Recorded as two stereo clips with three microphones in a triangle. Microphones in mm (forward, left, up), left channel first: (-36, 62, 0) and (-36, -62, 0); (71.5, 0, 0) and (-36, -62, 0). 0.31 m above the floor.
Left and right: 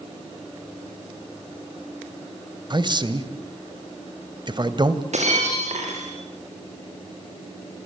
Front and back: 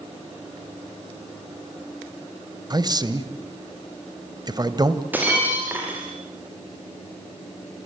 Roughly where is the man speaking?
Behind right.